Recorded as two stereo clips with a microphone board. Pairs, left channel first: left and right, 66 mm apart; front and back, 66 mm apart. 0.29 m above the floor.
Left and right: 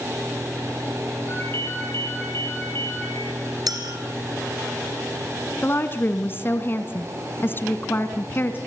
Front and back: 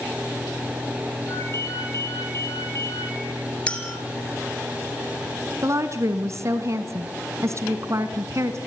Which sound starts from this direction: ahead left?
A ringtone, at 1.3 s.